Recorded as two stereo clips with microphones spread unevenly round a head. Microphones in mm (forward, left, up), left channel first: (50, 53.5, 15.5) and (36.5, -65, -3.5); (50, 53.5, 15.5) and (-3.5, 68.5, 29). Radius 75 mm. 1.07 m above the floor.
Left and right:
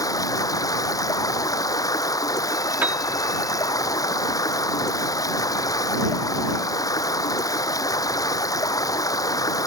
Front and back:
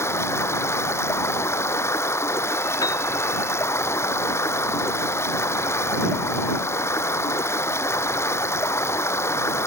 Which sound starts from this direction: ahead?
A piano, at 2.8 s.